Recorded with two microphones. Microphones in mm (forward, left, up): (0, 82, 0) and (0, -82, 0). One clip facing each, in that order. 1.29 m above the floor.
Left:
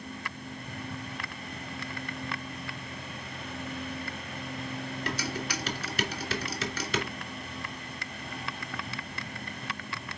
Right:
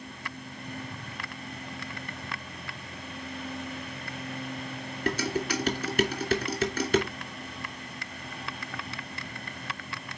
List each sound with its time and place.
5.1 s dishes clattering: 50° right (ahead or behind), 2.5 m